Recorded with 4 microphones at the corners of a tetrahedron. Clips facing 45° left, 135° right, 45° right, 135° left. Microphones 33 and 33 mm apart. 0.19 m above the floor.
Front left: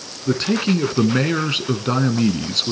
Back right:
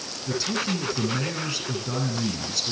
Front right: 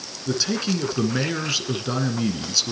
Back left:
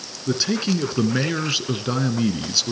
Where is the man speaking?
60° left, 1.8 m.